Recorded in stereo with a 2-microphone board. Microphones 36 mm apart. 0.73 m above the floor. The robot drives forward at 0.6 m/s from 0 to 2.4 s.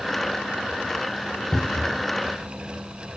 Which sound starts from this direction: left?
A cupboard door, at 1.5 s.